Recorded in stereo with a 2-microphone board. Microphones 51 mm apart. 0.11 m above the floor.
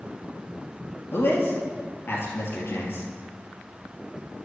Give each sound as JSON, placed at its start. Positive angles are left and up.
{"t": 1.1, "sound": "a man speaking", "side_deg": 50, "distance_m": 2.5}